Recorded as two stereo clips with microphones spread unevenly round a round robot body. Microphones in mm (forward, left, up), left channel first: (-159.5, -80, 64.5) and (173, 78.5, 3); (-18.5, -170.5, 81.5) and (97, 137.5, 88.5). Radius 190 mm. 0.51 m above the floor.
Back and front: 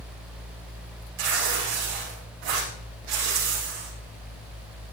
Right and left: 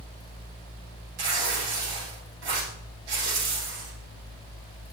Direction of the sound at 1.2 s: 50° left.